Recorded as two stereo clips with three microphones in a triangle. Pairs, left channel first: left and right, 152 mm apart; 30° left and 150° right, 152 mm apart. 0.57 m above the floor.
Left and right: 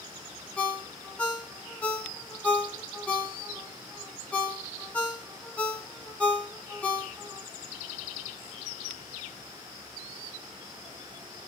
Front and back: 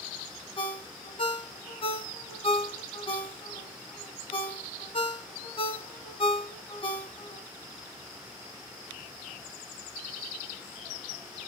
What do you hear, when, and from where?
0.6 s a ringtone: 15° left, 0.7 m